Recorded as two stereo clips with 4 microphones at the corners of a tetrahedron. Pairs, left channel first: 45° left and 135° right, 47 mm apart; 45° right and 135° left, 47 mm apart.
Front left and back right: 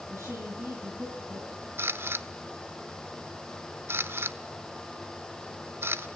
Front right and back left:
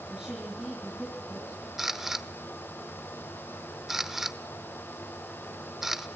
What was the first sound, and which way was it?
A woman speaking, 150° right.